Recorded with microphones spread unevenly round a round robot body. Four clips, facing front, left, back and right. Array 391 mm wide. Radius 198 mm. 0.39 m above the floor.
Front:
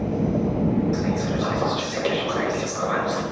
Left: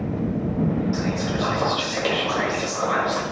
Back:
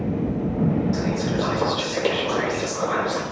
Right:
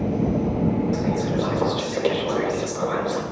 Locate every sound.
0.9 s whispering: 120° right, 1.4 m